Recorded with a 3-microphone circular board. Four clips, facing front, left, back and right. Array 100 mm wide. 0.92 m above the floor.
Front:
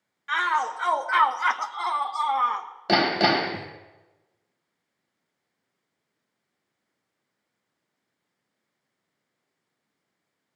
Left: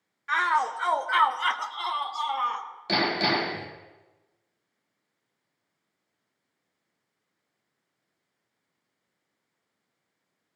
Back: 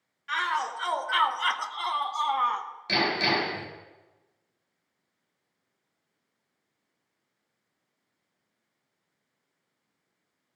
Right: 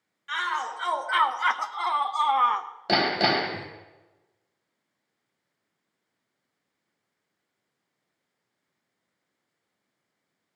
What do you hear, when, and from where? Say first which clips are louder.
0.3 s a shout: left 5 dB, front 4 dB; 55° left, 0.9 m; by 2.7 s 85° right, 1.0 m
2.9 s hammering: right 2 dB, front 6 dB; 30° right, 2.5 m